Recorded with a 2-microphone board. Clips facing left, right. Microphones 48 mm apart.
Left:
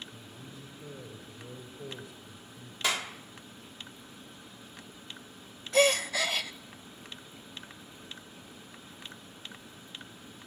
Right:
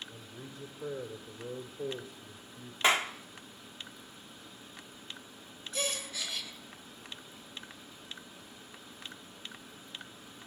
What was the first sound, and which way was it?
A man speaking, 65° right (ahead or behind).